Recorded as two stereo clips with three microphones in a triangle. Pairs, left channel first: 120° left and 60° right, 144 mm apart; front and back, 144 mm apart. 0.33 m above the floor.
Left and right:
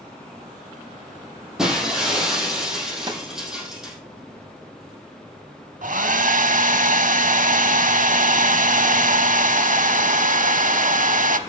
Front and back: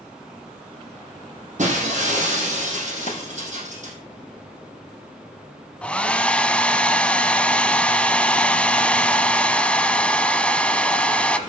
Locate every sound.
1.6 s breaking glass: 145° right, 5 m
3.1 s a snare drum: 5° right, 1.8 m
5.8 s a hair dryer: 80° right, 0.9 m